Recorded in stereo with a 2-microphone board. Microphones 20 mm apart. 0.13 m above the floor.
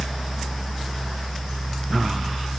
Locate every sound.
Only background noise.